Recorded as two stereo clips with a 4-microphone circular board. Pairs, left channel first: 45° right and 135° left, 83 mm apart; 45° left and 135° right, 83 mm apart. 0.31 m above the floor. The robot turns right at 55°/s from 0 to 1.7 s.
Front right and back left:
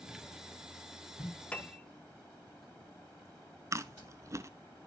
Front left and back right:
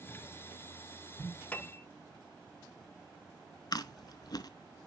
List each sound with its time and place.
1.5 s a piano: 5° left, 0.5 m; by 1.8 s 15° left, 0.5 m
3.7 s chewing: 80° left, 0.5 m